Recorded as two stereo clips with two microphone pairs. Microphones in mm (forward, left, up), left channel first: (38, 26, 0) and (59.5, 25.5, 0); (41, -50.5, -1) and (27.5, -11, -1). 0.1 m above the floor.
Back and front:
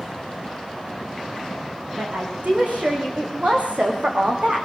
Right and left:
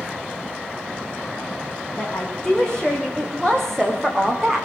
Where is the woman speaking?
5° right, 9 m; by 4.7 s 15° left, 7 m.